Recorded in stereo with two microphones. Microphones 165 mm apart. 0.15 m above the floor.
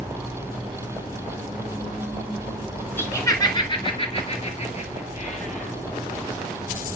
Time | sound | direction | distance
3.0 | laughter | 15° left (ahead or behind) | 1.5 m